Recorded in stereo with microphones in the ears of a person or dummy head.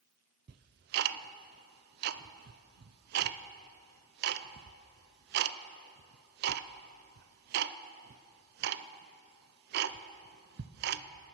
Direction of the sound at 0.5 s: 55° right (ahead or behind).